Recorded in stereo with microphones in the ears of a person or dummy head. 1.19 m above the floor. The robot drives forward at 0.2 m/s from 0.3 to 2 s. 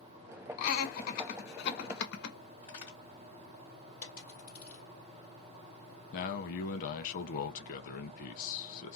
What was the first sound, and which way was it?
Laughter, 55° left (ahead or behind).